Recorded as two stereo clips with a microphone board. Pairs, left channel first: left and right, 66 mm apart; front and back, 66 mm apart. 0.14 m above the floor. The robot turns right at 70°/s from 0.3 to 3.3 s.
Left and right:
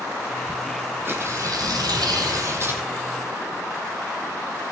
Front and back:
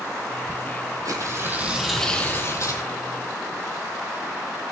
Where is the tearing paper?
150° right, 2 m; by 2.8 s 25° right, 2 m.